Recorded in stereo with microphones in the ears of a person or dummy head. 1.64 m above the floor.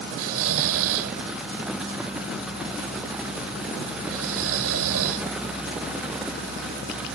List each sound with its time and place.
0.2 s snoring: 80° right